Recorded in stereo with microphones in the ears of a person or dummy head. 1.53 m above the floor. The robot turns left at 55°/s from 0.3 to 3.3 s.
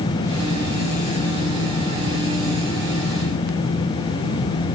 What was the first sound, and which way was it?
Only background noise.